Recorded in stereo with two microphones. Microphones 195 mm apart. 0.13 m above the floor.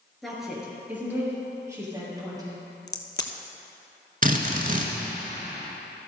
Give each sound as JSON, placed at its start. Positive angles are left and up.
{"t": 0.2, "sound": "a woman speaking", "side_deg": 0, "distance_m": 2.5}
{"t": 2.9, "sound": "a crack", "side_deg": 65, "distance_m": 0.8}
{"t": 4.2, "sound": "a drill", "side_deg": -45, "distance_m": 1.1}